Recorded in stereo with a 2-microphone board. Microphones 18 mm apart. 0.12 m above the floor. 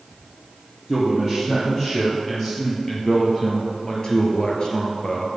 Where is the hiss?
I don't hear a hiss.